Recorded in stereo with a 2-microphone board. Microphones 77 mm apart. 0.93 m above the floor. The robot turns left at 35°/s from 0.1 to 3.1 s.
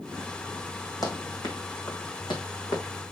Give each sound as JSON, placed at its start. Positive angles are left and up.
{"t": 1.0, "sound": "running footsteps", "side_deg": 55, "distance_m": 3.0}